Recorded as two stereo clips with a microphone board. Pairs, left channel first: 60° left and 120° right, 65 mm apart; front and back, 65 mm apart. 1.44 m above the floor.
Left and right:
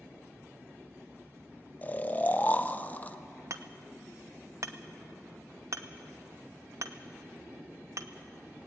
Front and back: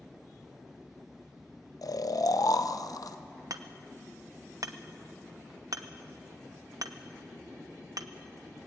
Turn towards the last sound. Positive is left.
turn(degrees=-155)